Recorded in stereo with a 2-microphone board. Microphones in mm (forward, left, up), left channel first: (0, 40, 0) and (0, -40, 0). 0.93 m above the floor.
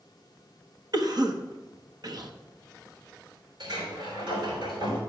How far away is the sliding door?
About 3.5 m.